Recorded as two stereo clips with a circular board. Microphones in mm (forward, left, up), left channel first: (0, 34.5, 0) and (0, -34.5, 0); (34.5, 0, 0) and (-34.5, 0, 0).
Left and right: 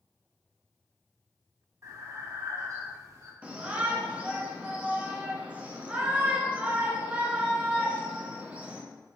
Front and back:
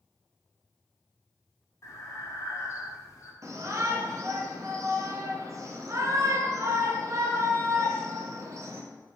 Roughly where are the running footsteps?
I don't hear running footsteps.